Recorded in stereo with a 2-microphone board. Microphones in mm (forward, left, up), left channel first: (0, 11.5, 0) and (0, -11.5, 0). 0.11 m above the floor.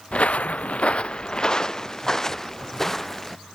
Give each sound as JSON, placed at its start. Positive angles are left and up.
{"t": 0.1, "sound": "footsteps", "side_deg": 60}